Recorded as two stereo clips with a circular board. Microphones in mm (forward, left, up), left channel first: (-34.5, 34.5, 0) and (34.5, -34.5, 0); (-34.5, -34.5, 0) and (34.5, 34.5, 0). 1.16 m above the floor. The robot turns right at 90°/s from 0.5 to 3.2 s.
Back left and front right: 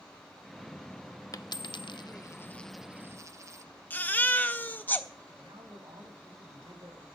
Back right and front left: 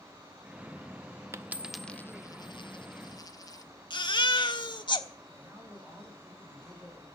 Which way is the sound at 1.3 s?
95° left.